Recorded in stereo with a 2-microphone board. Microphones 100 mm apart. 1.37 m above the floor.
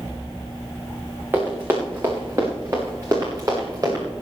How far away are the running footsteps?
About 6 m.